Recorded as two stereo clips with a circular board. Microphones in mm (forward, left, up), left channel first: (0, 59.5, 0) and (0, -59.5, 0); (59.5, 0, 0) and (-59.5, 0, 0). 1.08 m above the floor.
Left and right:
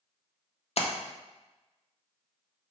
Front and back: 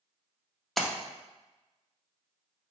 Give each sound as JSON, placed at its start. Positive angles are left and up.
{"t": 0.8, "sound": "a splash", "azimuth_deg": 90, "distance_m": 0.5}